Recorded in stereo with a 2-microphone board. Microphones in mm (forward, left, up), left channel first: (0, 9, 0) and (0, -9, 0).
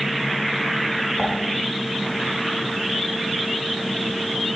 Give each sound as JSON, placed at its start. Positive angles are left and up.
{"t": 1.2, "sound": "dishes clattering", "side_deg": 45, "distance_m": 3.5}